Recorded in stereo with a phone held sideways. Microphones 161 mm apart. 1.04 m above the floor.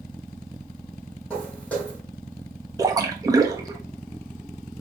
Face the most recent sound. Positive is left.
turn(degrees=-20)  # may be behind; listen again after turning